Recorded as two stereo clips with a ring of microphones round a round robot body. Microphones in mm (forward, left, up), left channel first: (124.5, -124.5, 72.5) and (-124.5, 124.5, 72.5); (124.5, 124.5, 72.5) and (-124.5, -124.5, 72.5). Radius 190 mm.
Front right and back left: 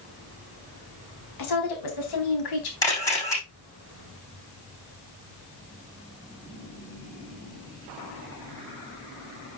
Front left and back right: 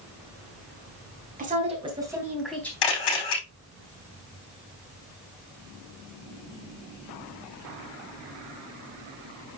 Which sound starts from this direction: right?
A woman speaking, at 1.4 s.